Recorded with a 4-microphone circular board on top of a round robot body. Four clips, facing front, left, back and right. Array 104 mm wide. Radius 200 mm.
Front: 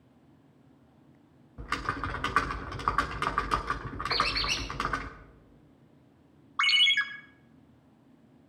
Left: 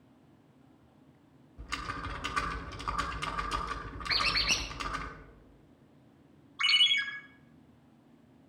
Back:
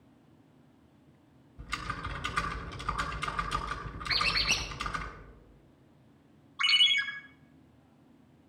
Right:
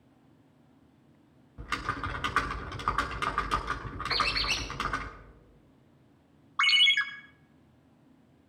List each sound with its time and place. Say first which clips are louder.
1.6 s typing on a keyboard: right 5 dB, front 5 dB; 20° right, 0.8 m
4.1 s a squeak: right 2 dB, front 2 dB; 115° left, 1.4 m
6.6 s a ringtone: right 5 dB, front 3 dB; 45° right, 0.8 m